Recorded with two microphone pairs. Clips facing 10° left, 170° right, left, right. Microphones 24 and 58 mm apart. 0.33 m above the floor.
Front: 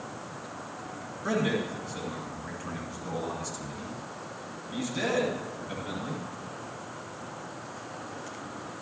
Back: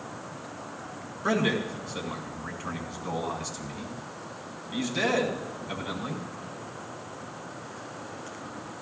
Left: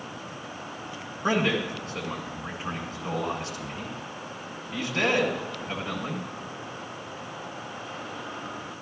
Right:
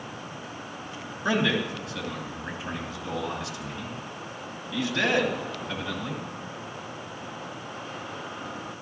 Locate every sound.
1.2 s a man speaking: 130° left, 2.5 m